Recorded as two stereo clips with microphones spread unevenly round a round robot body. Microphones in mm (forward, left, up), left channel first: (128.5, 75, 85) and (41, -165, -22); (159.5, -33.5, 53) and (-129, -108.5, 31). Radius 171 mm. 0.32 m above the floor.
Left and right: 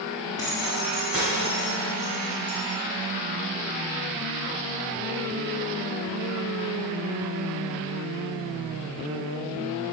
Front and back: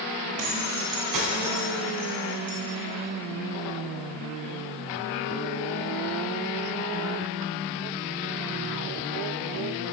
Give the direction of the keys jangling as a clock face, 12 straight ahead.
7 o'clock.